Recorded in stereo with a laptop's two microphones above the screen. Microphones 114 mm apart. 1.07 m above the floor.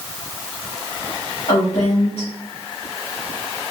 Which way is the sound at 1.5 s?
65° left (ahead or behind).